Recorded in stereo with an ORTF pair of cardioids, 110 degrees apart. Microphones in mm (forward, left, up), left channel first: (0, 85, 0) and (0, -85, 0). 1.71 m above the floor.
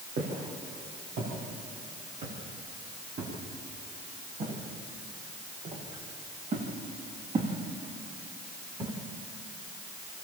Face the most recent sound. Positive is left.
turn(degrees=-30)